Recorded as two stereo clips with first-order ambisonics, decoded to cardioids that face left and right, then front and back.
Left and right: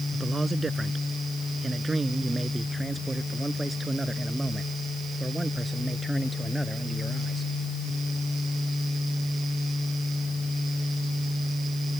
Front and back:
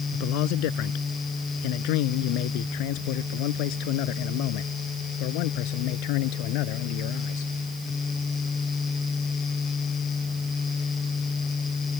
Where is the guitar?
I don't hear a guitar.